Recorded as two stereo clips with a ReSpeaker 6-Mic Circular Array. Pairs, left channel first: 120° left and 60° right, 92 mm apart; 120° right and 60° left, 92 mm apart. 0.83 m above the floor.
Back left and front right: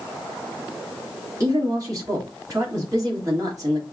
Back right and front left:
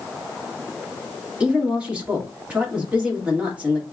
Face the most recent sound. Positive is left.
turn(degrees=-15)